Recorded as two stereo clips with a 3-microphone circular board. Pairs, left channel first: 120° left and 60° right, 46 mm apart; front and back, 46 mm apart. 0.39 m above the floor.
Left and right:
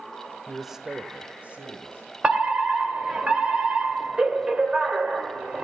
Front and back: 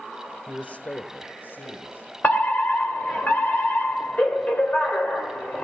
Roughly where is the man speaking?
Ahead left.